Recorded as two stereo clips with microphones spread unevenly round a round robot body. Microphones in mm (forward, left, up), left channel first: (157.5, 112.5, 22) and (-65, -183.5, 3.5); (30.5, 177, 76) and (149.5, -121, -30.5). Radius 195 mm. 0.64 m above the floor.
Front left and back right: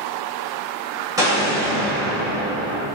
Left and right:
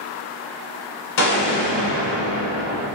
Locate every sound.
1.2 s an explosion: 150° left, 1.2 m